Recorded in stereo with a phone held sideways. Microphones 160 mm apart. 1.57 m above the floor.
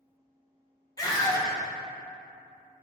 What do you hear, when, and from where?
1.0 s a scream: 25° left (ahead or behind), 0.6 m